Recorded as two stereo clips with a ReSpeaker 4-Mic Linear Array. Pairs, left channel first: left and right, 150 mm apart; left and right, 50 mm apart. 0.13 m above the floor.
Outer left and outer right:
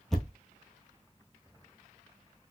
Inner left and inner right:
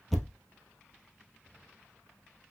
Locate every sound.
0.1 s a thud: centre (ahead or behind), 1.0 m